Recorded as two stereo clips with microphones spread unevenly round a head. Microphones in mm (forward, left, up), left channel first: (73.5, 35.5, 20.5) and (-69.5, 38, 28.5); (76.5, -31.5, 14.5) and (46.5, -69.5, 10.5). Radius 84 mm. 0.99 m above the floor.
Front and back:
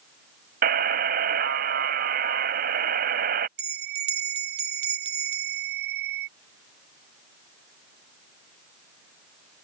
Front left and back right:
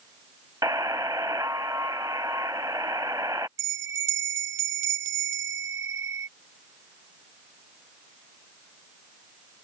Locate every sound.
0.6 s a buzzer: 165° left
3.6 s a bell: 155° right